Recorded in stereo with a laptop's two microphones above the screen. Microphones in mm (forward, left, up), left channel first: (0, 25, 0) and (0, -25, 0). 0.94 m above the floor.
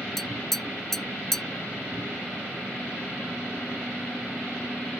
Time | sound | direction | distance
0.2 | tapping | 5° left (ahead or behind) | ?